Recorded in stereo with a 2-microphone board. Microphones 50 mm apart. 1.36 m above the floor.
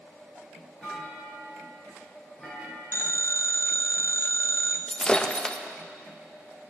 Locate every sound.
0.8 s a clunk: centre (ahead or behind), 4 m
2.9 s a phone ringing: 60° left (ahead or behind), 0.6 m
4.9 s breaking glass: 20° left (ahead or behind), 0.6 m